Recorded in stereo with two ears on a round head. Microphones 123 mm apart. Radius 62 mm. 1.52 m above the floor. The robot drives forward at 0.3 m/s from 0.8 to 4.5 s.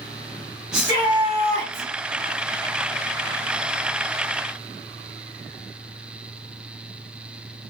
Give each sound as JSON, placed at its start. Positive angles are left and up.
{"t": 0.7, "sound": "a shout", "side_deg": -30, "distance_m": 1.3}